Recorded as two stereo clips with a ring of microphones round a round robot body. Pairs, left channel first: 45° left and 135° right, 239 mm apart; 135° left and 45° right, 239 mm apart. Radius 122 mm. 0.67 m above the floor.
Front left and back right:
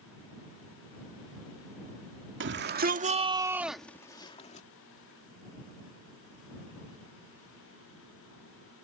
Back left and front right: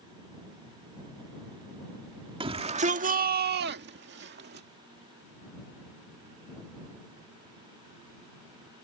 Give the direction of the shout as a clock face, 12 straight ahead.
4 o'clock.